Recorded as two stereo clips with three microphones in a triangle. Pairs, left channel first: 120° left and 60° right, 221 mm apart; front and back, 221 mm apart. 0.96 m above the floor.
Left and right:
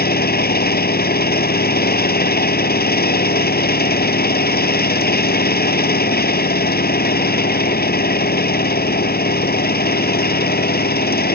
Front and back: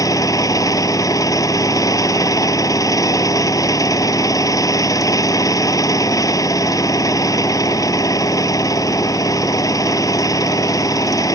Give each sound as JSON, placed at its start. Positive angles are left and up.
{"t": 0.0, "sound": "an engine running", "azimuth_deg": 75}